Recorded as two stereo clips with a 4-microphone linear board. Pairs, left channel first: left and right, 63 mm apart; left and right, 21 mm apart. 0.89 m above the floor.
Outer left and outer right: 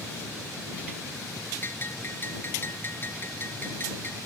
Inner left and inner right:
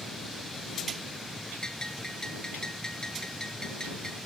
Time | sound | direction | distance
1.6 | a bell | 30° left (ahead or behind) | ?